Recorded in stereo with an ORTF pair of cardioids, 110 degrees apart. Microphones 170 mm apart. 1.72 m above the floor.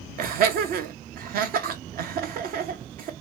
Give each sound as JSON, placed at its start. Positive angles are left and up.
{"t": 0.2, "sound": "laughter", "azimuth_deg": -65, "distance_m": 0.8}